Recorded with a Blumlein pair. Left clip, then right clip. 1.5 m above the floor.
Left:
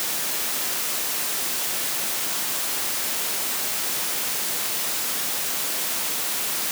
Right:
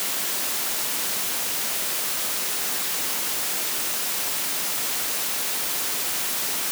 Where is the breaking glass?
I don't hear breaking glass.